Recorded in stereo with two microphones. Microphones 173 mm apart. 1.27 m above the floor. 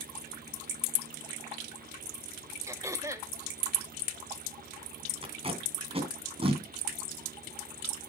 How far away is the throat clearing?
About 1.0 m.